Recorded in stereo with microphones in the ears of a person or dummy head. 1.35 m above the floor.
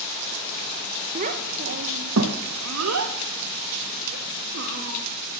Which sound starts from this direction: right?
A child speaking, at 1.1 s.